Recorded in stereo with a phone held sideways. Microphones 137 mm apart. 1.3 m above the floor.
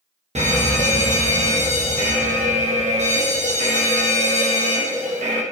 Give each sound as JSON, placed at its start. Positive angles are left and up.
{"t": 0.3, "sound": "a fire alarm", "side_deg": -55, "distance_m": 1.4}